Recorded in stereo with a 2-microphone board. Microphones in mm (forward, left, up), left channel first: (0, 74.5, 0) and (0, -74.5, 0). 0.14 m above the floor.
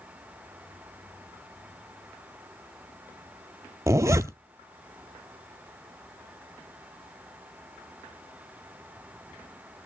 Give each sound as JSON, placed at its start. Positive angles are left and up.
{"t": 3.9, "sound": "a zipper", "side_deg": -20, "distance_m": 0.5}